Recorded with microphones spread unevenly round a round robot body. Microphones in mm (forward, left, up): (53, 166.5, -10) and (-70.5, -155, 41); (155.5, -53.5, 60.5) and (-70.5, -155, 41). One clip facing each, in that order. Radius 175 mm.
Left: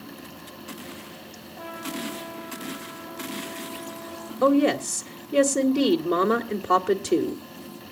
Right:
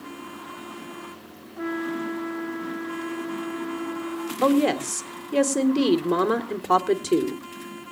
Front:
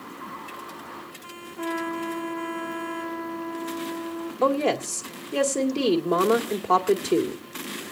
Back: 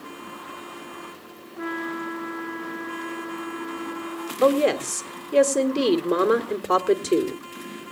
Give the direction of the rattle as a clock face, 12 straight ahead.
No rattle in this recording.